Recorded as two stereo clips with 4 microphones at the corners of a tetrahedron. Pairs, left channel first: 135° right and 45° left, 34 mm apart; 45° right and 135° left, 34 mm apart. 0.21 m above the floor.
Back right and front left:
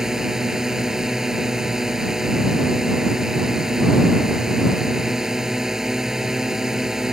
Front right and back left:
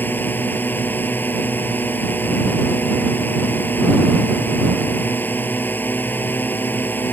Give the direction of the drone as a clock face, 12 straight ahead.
1 o'clock.